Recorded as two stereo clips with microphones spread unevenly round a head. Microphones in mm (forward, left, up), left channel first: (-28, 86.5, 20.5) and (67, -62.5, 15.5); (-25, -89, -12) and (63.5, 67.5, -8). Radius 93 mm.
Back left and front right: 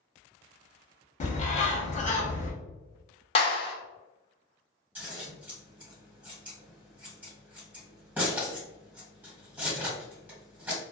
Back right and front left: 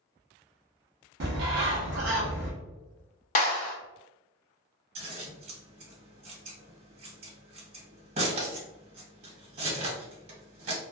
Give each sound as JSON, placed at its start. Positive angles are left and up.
{"t": 1.2, "sound": "a bird", "azimuth_deg": 80, "distance_m": 0.7}
{"t": 3.4, "sound": "a clap", "azimuth_deg": -175, "distance_m": 0.6}
{"t": 5.0, "sound": "scissors", "azimuth_deg": 25, "distance_m": 1.6}